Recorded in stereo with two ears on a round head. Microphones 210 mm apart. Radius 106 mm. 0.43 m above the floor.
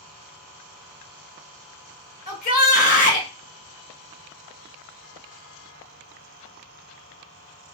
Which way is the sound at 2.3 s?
35° left (ahead or behind).